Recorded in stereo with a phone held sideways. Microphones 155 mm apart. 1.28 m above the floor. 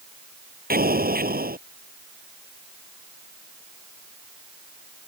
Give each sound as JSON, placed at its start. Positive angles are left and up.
{"t": 0.7, "sound": "an explosion", "side_deg": -75}